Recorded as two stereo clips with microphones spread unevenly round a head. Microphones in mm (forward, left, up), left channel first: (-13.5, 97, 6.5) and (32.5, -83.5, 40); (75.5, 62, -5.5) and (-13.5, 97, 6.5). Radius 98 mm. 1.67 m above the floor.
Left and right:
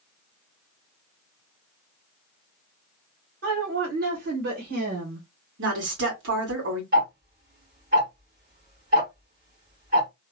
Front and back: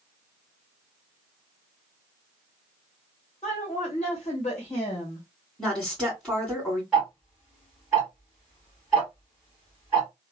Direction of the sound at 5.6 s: 110° right.